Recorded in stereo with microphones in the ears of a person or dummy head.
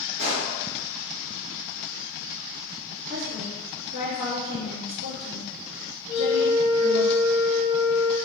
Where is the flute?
40° right (ahead or behind), 1.5 m.